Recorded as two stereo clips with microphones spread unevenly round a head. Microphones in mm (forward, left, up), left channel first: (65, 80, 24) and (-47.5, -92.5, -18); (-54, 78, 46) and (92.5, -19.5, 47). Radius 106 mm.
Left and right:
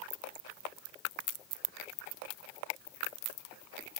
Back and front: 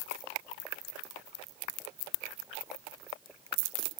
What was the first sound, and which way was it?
Only background noise.